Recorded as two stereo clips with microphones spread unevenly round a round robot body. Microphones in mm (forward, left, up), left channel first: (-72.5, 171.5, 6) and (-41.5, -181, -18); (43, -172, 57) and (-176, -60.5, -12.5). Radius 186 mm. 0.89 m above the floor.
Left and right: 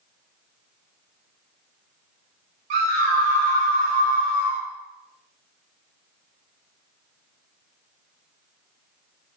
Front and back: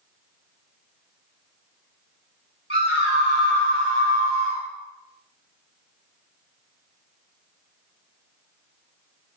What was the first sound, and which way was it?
A scream, 80° right.